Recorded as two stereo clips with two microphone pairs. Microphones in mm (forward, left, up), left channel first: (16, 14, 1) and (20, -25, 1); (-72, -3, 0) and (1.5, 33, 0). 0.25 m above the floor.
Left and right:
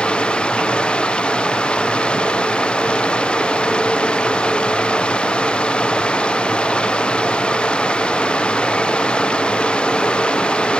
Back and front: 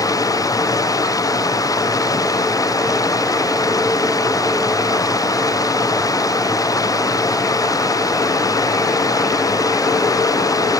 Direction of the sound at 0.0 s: 160° left.